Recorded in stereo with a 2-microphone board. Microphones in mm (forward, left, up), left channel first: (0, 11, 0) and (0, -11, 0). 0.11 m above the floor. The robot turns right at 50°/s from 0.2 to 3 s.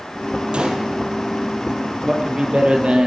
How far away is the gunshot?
About 2.5 m.